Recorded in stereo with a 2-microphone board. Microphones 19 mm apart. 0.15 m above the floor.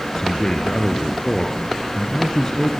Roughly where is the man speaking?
Left.